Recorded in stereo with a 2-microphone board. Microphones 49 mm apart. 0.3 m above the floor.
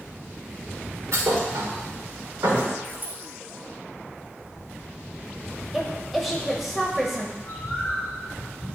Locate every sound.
1.1 s a thud: 85° right, 2.5 m
2.8 s a dropped coin: 45° right (ahead or behind), 1.9 m
5.7 s a woman speaking: centre (ahead or behind), 0.9 m
7.4 s a bird: 20° left (ahead or behind), 3.5 m